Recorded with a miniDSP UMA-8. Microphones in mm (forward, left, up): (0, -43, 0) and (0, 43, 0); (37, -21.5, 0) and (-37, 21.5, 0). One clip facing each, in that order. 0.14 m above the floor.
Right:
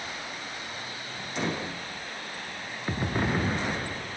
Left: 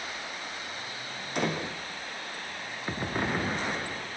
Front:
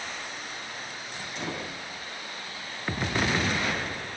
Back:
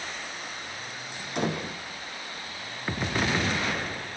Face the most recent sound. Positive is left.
turn(degrees=125)